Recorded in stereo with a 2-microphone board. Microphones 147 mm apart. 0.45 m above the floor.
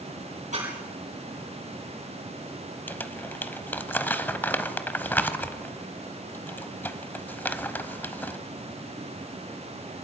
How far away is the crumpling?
About 0.9 m.